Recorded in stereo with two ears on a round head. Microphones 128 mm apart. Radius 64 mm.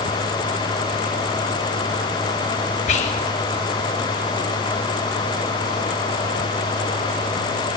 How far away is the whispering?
About 0.9 m.